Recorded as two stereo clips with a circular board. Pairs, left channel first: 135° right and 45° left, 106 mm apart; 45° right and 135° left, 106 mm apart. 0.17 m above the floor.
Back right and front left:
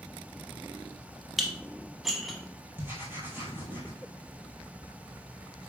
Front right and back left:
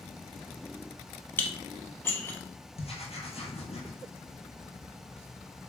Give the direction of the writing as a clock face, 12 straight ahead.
1 o'clock.